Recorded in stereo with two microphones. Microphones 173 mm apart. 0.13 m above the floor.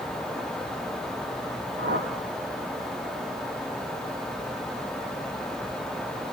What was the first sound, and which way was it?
A whoosh, 70° right (ahead or behind).